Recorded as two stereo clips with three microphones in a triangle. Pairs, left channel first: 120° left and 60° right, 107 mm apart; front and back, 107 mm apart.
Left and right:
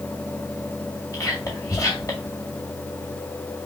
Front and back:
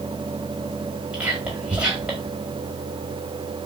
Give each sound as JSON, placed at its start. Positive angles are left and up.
{"t": 1.1, "sound": "whispering", "azimuth_deg": 110, "distance_m": 1.7}